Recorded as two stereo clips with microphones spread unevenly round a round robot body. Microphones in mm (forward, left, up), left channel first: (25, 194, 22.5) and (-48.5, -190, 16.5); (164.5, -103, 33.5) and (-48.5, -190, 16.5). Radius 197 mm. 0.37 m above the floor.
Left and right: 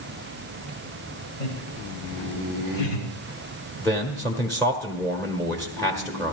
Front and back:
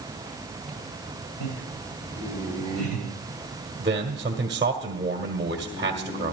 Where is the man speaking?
155° left, 1.4 m.